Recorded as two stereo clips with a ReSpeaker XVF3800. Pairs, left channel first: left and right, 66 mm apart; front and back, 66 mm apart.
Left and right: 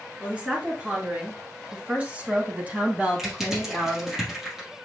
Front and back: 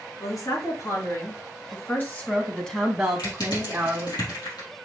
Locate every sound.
0.2 s a woman speaking: 20° right, 3 m; by 4.2 s 155° right, 1.9 m
3.2 s crushing: 5° right, 3.5 m